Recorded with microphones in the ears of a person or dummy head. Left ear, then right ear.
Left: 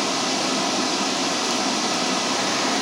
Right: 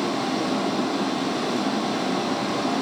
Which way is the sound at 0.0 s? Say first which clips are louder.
Left 2 dB; 65° left (ahead or behind).